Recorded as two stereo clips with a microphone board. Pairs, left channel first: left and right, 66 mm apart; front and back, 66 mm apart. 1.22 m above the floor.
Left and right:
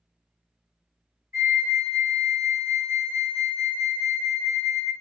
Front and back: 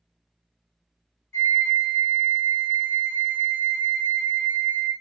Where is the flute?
45° right, 1.6 m.